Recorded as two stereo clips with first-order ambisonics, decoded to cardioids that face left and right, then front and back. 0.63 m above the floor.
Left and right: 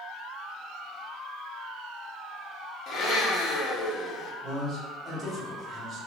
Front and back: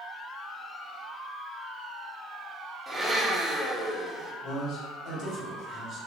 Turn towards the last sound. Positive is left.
turn(degrees=-30)